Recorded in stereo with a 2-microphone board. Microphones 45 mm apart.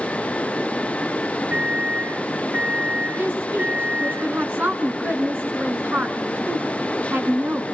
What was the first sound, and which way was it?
A microwave, 45° right (ahead or behind).